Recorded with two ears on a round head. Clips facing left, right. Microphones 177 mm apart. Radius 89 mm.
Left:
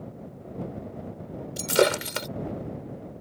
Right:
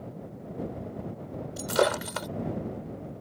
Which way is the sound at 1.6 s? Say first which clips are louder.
Left 3 dB; 35° left (ahead or behind).